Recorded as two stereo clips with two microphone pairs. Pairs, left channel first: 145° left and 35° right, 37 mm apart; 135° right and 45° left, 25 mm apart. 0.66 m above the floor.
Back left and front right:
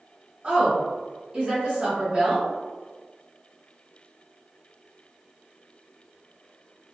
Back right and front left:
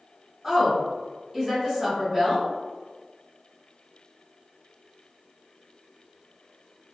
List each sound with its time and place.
0.4 s a woman speaking: 10° right, 1.1 m